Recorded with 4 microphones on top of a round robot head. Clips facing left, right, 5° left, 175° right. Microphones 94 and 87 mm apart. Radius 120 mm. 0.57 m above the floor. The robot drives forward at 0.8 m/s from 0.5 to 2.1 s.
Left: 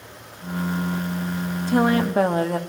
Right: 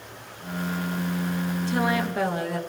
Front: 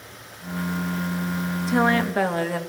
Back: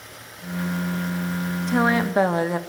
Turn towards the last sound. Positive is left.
turn(degrees=120)